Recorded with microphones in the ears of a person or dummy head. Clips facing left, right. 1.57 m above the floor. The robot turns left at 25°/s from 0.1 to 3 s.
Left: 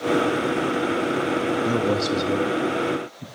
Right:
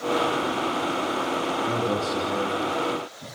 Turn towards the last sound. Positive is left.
turn(degrees=30)